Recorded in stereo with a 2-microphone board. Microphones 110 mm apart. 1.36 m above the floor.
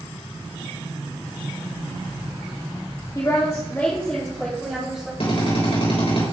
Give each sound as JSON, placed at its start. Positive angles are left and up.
{"t": 3.1, "sound": "a woman speaking", "side_deg": 40, "distance_m": 3.0}
{"t": 5.2, "sound": "a drill", "side_deg": 65, "distance_m": 5.0}